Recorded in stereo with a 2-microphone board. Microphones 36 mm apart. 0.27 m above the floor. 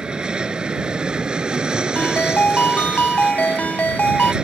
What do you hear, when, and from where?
0.0 s an aircraft: 25° right (ahead or behind)
1.9 s a ringtone: 55° left (ahead or behind)